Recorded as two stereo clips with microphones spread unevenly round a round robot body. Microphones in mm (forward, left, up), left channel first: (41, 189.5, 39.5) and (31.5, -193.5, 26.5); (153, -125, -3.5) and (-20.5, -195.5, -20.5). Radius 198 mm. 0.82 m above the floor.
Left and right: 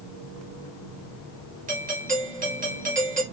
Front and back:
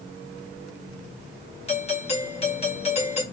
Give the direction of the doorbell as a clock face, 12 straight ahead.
1 o'clock.